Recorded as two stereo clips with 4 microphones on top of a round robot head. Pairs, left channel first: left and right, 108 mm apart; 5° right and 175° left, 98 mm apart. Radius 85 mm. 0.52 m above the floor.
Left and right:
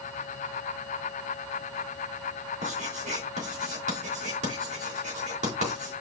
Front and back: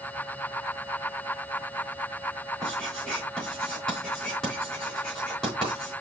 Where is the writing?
90° right, 3.5 m.